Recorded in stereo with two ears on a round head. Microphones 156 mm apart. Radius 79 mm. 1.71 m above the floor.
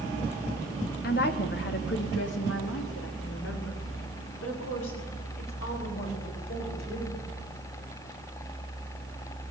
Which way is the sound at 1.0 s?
55° left (ahead or behind).